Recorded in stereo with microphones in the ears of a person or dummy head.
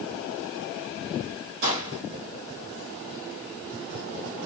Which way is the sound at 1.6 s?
65° right (ahead or behind).